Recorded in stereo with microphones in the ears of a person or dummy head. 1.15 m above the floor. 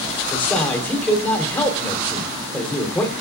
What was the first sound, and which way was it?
A man speaking, 10° left (ahead or behind).